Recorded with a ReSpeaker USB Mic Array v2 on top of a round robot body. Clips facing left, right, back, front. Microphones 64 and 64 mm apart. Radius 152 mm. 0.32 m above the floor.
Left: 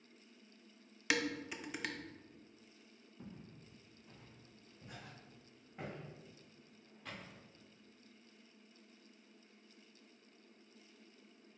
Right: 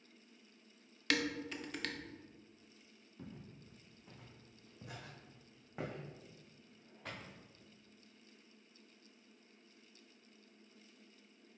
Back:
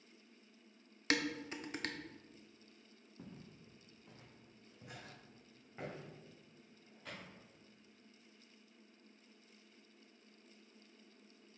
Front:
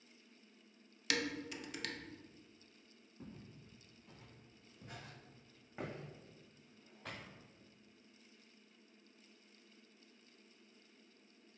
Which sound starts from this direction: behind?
Dishes clattering, at 1.1 s.